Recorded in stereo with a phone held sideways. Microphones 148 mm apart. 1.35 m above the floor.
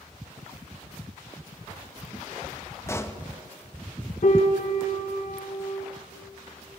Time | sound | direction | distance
2.9 | a pop | 20° left (ahead or behind) | 0.8 m
4.2 | a piano | 65° left (ahead or behind) | 1.5 m